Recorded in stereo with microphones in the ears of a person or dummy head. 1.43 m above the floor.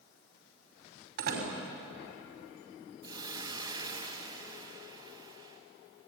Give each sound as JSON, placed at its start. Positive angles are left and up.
{"t": 1.2, "sound": "a door slam", "side_deg": -60, "distance_m": 5.5}
{"t": 3.0, "sound": "a hiss", "side_deg": -20, "distance_m": 2.5}